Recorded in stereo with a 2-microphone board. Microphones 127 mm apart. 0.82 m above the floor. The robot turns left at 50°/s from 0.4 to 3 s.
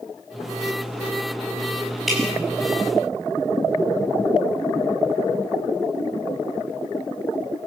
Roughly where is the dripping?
Centre.